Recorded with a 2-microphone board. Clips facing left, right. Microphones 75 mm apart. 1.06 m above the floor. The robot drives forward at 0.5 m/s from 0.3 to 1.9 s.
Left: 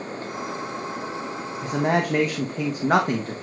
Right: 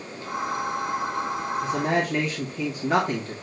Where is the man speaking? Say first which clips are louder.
Left 4 dB; 50° left (ahead or behind), 1.2 m; by 3.3 s 55° left (ahead or behind), 1.2 m.